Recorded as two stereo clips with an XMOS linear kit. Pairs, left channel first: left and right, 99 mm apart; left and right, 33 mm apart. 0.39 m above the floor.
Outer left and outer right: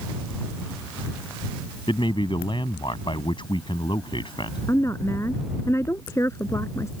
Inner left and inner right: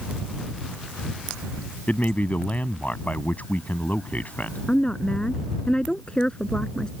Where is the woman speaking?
30° left (ahead or behind).